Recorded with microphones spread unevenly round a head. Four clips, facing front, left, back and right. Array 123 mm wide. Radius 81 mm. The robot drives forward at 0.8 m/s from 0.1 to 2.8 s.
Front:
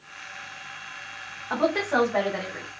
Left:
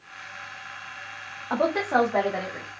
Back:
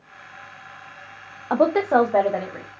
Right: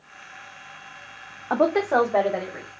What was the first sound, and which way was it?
A woman speaking, 150° right.